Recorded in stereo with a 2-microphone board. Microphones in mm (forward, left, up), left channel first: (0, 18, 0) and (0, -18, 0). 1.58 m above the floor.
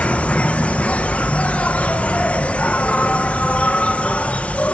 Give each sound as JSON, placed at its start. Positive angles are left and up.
{"t": 0.0, "sound": "an insect", "side_deg": 40, "distance_m": 0.9}